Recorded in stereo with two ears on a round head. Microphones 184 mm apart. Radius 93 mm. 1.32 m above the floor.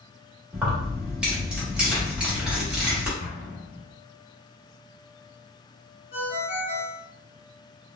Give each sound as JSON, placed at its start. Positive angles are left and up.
{"t": 0.5, "sound": "keys jangling", "side_deg": -5, "distance_m": 1.2}
{"t": 3.2, "sound": "an explosion", "side_deg": 40, "distance_m": 0.9}
{"t": 6.1, "sound": "a ringtone", "side_deg": 40, "distance_m": 2.0}